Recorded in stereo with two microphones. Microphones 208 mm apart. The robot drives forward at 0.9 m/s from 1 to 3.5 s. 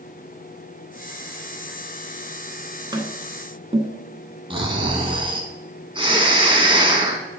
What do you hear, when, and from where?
2.9 s tapping: 20° right (ahead or behind), 1.0 m; by 3.9 s 30° right (ahead or behind), 0.7 m
4.5 s snoring: 25° right (ahead or behind), 1.2 m